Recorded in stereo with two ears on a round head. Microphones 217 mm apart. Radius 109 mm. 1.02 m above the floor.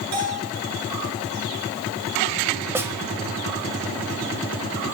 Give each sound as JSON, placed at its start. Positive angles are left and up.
{"t": 0.1, "sound": "a bell", "side_deg": -75, "distance_m": 8.5}
{"t": 2.8, "sound": "a snare drum", "side_deg": -10, "distance_m": 1.3}